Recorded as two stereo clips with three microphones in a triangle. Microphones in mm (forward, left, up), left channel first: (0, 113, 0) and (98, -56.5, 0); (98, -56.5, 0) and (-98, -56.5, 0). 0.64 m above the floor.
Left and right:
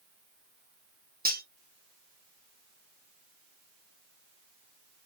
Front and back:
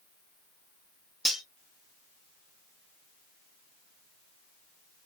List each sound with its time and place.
1.2 s cutlery clinking: 90° right, 0.8 m